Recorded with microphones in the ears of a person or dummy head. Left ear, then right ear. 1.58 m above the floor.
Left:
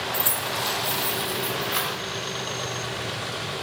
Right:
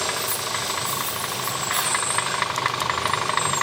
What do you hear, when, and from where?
0.1 s keys jangling: 45° left (ahead or behind), 0.8 m; by 2.0 s 10° right (ahead or behind), 1.0 m